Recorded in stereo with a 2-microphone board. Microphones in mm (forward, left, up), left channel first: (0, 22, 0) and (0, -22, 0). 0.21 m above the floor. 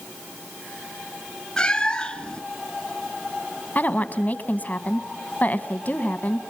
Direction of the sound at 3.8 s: 40° left (ahead or behind).